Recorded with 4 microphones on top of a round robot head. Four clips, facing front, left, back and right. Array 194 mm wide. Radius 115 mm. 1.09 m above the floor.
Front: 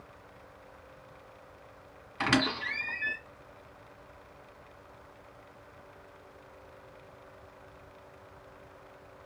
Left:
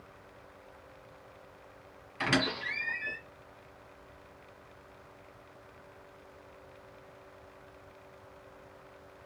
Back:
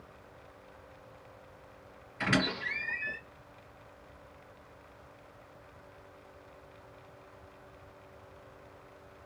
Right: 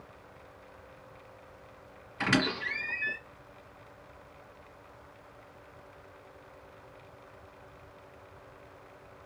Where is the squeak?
5° left, 1.8 m.